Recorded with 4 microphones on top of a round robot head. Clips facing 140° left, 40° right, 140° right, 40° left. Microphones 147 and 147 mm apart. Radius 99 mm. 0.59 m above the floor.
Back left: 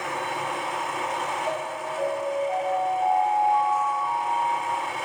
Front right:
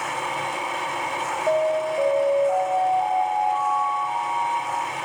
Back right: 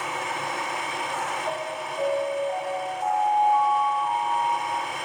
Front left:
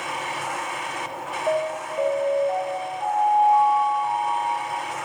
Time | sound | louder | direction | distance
1.5 | an alarm | front right 9 dB, front left 6 dB | 5° left | 5.5 m